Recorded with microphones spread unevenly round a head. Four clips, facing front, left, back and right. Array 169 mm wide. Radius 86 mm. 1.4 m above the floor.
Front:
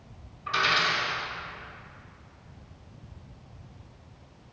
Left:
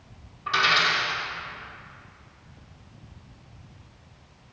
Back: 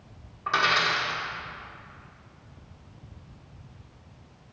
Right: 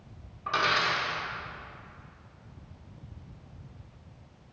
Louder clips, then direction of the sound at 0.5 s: Left 4 dB, back 2 dB; 175° left.